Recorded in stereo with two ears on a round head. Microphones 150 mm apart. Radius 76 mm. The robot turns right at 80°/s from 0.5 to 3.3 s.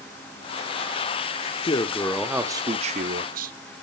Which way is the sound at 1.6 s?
135° left.